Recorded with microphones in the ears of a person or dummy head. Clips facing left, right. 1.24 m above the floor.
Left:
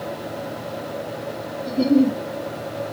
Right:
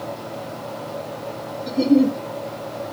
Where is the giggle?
20° right (ahead or behind), 1.5 m.